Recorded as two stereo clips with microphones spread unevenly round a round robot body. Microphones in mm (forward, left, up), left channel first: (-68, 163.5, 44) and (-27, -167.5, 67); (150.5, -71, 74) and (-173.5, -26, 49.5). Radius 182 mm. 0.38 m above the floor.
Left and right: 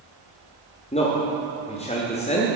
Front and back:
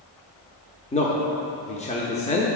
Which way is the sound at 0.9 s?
50° left.